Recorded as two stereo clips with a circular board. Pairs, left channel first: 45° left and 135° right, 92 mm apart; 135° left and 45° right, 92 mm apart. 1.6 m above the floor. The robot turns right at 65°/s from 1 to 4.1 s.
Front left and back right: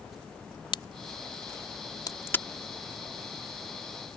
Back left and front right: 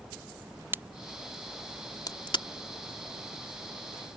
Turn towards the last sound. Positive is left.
turn(degrees=-135)